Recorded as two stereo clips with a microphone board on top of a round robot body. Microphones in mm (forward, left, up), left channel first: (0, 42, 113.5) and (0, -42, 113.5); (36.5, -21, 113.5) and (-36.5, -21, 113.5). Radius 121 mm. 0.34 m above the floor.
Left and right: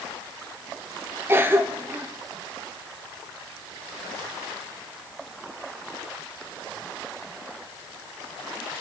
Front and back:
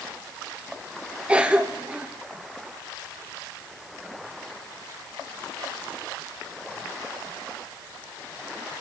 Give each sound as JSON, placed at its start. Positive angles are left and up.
{"t": 1.3, "sound": "a cough", "azimuth_deg": -120, "distance_m": 1.3}